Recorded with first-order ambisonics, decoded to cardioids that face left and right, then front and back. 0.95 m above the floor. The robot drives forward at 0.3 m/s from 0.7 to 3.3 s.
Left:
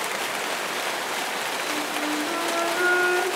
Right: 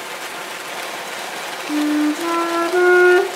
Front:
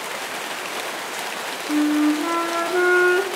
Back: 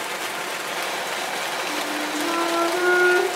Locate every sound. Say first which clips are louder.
1.7 s a flute: right 7 dB, front 5 dB; 50° right, 0.9 m; by 3.3 s 85° right, 0.7 m